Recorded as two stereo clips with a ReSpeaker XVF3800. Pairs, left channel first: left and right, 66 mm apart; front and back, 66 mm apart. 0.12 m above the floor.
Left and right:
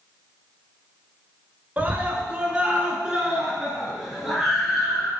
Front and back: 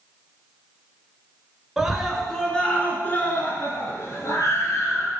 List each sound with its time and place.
1.8 s a scream: 105° right, 1.1 m; by 5.1 s straight ahead, 1.9 m